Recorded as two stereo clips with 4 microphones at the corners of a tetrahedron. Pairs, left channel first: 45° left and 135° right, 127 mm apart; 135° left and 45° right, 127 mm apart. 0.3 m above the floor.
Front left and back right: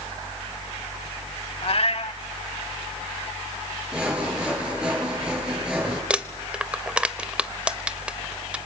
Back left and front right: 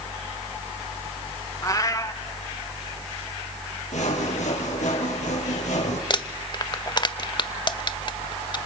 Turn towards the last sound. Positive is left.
turn(degrees=145)